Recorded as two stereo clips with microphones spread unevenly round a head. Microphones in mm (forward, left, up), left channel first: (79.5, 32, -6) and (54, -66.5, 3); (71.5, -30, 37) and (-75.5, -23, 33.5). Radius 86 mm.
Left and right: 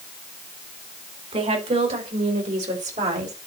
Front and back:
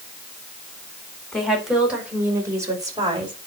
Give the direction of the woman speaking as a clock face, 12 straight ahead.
3 o'clock.